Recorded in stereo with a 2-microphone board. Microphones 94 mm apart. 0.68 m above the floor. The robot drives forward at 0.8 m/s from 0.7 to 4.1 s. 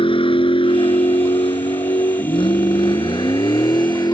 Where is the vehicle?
85° left; by 4.1 s 50° left (ahead or behind).